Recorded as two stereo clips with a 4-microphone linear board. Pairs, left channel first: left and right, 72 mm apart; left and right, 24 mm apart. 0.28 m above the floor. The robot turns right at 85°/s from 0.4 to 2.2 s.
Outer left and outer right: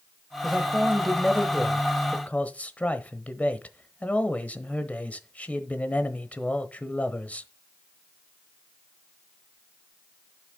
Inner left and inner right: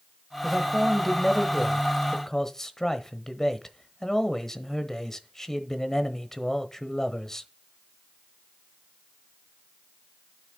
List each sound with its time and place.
0.4 s a man speaking: 20° right (ahead or behind), 1.0 m; by 7.5 s 20° left (ahead or behind), 1.0 m